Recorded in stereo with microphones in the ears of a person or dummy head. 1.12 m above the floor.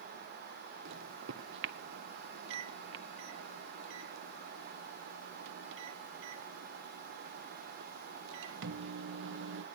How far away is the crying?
No crying in this recording.